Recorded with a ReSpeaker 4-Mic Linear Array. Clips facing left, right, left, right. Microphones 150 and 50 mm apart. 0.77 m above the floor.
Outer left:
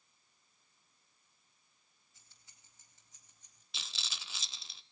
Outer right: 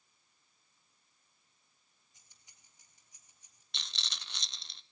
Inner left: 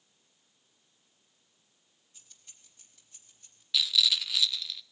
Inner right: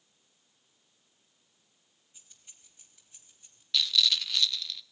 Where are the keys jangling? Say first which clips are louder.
Even, even; 20° right (ahead or behind), 3 m; by 3.6 s 10° right (ahead or behind), 3.5 m.